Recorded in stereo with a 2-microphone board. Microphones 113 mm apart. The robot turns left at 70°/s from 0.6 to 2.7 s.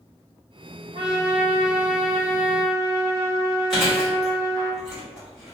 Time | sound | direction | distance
0.9 | a trumpet | 95° right | 1.2 m
3.7 | chewing | 5° left (ahead or behind) | 1.3 m